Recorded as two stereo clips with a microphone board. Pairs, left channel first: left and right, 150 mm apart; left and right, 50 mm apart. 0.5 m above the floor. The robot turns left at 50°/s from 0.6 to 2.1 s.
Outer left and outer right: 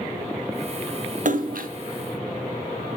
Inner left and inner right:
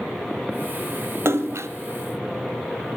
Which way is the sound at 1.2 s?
65° right (ahead or behind).